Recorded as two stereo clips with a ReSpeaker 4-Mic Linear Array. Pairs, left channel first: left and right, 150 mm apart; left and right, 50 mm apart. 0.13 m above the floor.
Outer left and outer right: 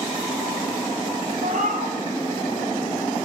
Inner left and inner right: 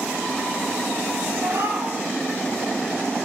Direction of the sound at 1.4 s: 65° right (ahead or behind).